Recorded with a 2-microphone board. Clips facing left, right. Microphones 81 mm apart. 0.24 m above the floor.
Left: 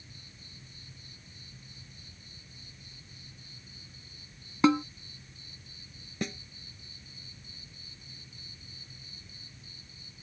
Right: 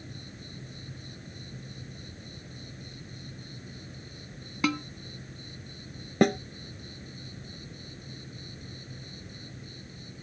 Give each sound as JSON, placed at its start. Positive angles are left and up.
{"t": 0.0, "sound": "an insect", "side_deg": -60}
{"t": 4.6, "sound": "a snare drum", "side_deg": 25}
{"t": 6.2, "sound": "a snare drum", "side_deg": -60}